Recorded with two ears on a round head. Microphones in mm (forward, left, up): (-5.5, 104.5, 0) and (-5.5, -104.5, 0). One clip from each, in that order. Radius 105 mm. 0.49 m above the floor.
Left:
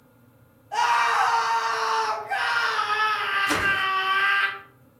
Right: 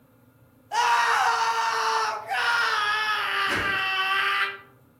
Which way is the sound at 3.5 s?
50° left (ahead or behind).